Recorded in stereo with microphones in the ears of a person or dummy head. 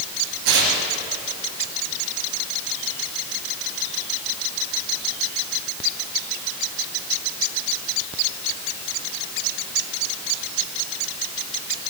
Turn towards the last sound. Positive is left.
turn(degrees=-75)  # may be behind; listen again after turning